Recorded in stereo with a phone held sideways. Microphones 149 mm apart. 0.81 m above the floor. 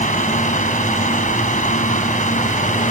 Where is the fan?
60° left (ahead or behind).